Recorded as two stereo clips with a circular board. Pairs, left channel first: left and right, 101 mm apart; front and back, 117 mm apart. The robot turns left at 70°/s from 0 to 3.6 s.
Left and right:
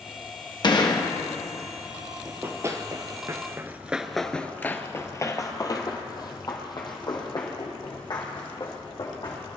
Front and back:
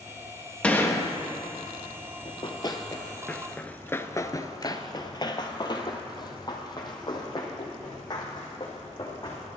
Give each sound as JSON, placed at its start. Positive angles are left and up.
{"t": 0.6, "sound": "a gunshot", "azimuth_deg": 75, "distance_m": 1.2}
{"t": 2.2, "sound": "running footsteps", "azimuth_deg": -15, "distance_m": 1.4}